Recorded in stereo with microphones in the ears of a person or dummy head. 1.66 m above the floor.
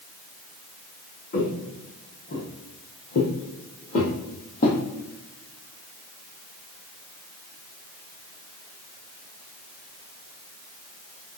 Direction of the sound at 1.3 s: 35° left (ahead or behind).